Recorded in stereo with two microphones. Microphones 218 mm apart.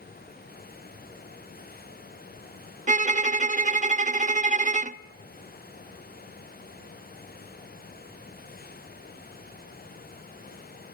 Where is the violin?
35° right (ahead or behind), 0.6 m.